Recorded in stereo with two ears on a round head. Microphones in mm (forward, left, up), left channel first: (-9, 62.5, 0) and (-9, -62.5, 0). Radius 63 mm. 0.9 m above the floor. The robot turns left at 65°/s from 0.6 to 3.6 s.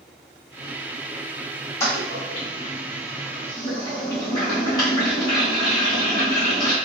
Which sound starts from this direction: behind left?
A toilet flushing, at 1.8 s.